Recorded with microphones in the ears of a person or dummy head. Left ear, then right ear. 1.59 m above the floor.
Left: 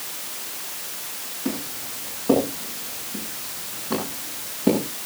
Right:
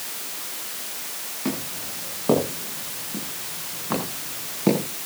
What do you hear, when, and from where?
1.4 s footsteps: 80° right, 9.5 m; by 4.8 s 70° right (ahead or behind), 10 m